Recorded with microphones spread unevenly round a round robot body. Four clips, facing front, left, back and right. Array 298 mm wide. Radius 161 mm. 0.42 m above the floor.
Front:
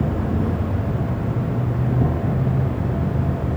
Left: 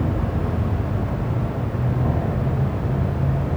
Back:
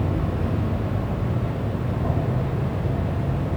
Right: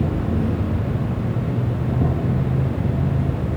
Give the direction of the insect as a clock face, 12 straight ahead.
1 o'clock.